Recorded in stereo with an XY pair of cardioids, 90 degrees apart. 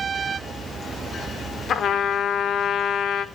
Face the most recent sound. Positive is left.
turn(degrees=65)